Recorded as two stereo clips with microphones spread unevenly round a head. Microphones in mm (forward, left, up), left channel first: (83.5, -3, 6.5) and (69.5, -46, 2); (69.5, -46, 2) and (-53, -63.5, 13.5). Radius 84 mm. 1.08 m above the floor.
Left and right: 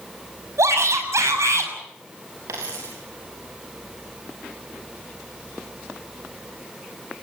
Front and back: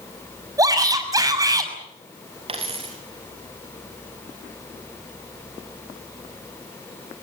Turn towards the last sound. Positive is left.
turn(degrees=-130)